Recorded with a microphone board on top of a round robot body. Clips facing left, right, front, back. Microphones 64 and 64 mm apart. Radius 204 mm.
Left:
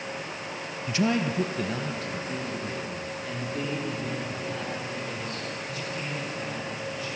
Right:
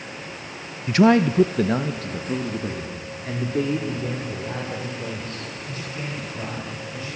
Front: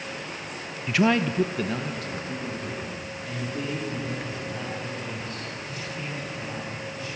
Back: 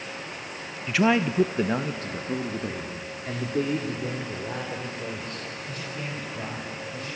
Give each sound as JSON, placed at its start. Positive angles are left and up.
{"t": 0.9, "sound": "a man speaking", "azimuth_deg": -85, "distance_m": 0.7}